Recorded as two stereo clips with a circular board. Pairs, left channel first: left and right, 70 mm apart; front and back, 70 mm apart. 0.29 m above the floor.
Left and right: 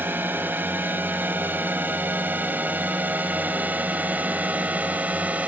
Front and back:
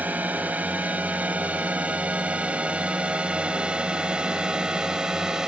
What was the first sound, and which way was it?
A drone, 130° right.